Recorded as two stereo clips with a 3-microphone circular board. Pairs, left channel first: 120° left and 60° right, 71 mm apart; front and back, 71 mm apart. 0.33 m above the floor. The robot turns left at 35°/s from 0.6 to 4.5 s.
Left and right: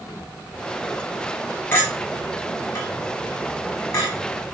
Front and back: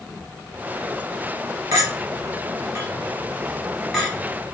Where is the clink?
170° left, 1.2 m; by 4.1 s 90° left, 1.2 m.